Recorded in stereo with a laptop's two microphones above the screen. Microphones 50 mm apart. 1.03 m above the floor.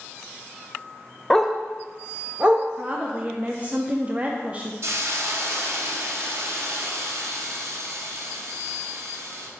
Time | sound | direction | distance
1.3 | a dog barking | 10° left (ahead or behind) | 0.7 m
2.8 | a woman speaking | 30° right (ahead or behind) | 0.6 m
4.8 | a hiss | 65° right (ahead or behind) | 1.1 m